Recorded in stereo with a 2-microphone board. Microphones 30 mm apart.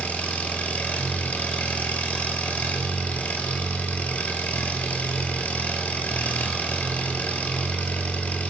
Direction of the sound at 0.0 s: 65° left (ahead or behind).